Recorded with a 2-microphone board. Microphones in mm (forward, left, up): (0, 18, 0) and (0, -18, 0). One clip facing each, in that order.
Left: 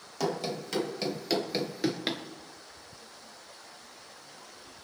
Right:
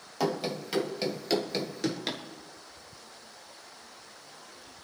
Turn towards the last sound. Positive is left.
turn(degrees=20)  # may be behind; listen again after turning